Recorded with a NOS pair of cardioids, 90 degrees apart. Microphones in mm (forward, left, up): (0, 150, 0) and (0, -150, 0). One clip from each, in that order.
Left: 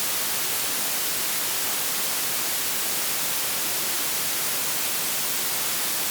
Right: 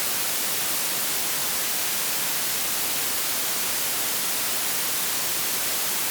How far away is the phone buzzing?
No phone buzzing in this recording.